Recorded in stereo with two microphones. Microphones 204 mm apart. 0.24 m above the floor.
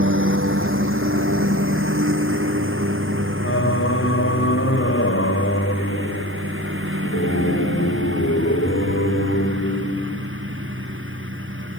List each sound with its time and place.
0.0 s a lawn mower: 85° right; by 11.8 s 80° right
3.4 s singing: 85° left